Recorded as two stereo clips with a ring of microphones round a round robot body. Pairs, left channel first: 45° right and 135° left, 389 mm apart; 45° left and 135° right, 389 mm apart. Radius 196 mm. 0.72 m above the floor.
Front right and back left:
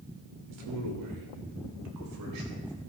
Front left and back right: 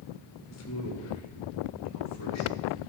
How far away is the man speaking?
About 2.5 m.